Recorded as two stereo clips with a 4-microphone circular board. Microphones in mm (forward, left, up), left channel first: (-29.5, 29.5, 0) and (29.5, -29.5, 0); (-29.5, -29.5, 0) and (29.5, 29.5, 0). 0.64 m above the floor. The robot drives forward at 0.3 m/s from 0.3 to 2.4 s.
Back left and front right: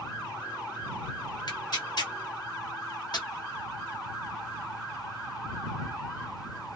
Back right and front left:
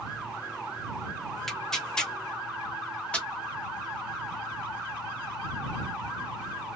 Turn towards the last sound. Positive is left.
turn(degrees=150)